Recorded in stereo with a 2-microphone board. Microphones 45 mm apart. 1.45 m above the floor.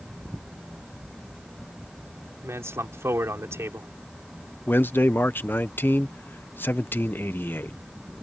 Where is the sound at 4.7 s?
50° left (ahead or behind).